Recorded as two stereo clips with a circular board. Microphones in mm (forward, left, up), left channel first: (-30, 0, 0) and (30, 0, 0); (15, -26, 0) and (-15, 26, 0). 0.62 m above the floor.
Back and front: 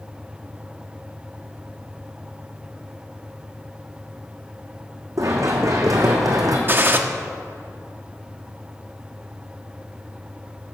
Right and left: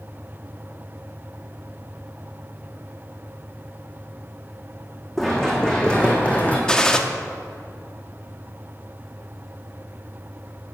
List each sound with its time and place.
5.2 s running footsteps: 25° left, 3 m; by 6.6 s 5° left, 2.5 m
6.7 s a gunshot: 10° left, 0.8 m